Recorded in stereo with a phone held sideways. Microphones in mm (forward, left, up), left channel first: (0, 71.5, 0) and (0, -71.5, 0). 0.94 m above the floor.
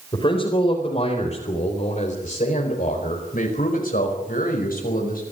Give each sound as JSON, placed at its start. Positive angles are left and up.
{"t": 0.1, "sound": "a man speaking", "side_deg": 40, "distance_m": 4.5}